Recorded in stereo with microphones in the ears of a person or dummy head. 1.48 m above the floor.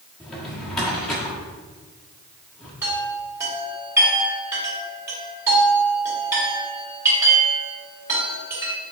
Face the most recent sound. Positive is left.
turn(degrees=-15)  # may be behind; listen again after turning